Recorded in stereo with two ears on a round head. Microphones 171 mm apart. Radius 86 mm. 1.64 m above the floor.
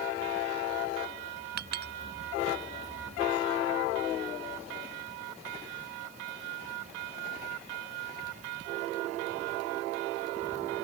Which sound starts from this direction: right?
A clink, at 1.6 s.